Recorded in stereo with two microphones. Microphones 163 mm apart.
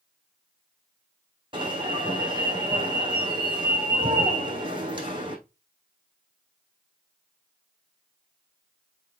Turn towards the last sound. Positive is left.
turn(degrees=-30)  # may be behind; listen again after turning